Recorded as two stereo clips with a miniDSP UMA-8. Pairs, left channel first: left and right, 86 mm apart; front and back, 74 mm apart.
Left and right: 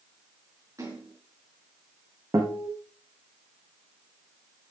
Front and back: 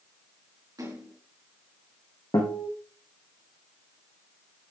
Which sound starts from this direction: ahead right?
A guitar, at 2.3 s.